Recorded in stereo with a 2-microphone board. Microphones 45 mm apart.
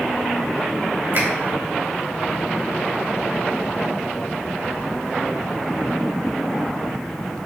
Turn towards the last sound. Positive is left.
turn(degrees=-60)  # may be behind; listen again after turning